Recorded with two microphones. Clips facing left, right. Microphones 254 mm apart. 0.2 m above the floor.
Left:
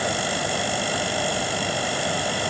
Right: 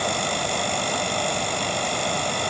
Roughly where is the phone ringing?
I don't hear a phone ringing.